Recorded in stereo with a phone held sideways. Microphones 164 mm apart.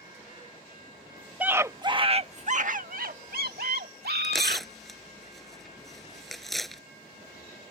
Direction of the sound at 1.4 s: 10° right (ahead or behind).